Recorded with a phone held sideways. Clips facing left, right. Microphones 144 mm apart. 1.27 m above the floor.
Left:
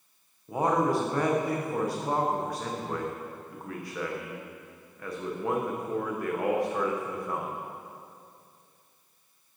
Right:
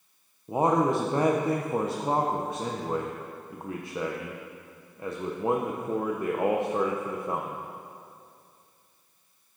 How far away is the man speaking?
About 0.6 m.